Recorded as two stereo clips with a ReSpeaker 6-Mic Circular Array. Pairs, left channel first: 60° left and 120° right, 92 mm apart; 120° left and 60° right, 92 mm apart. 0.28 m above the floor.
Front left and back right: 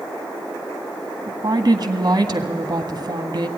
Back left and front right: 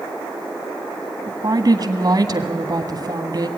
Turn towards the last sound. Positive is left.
turn(degrees=-90)